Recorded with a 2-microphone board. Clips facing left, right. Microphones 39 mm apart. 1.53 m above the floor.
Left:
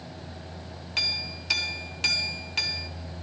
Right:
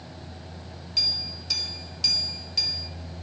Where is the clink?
45° left (ahead or behind), 1.2 m.